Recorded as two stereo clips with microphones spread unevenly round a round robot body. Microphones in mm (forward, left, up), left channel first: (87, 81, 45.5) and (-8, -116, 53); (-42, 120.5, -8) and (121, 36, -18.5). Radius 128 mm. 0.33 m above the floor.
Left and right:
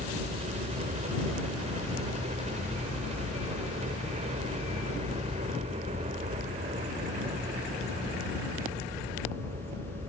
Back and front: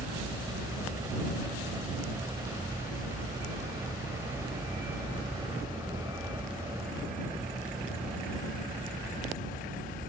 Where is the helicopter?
90° right.